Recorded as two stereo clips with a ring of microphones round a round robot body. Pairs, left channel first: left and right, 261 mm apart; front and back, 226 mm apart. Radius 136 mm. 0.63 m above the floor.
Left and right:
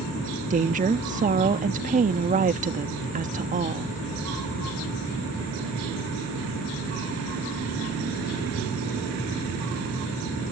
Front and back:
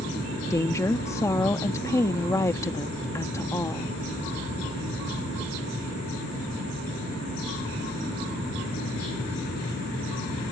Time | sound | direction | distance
0.5 | a woman speaking | 65° right | ?